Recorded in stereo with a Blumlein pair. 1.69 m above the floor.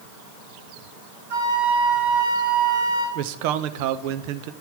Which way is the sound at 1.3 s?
60° right.